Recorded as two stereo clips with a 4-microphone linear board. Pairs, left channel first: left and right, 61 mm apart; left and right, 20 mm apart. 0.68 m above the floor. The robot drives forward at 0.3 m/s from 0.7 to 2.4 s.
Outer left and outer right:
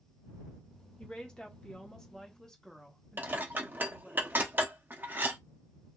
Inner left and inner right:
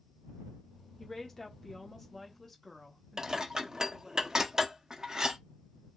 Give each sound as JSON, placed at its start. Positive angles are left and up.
{"t": 1.0, "sound": "a woman speaking", "side_deg": 15, "distance_m": 1.0}
{"t": 3.2, "sound": "dishes clattering", "side_deg": -30, "distance_m": 0.6}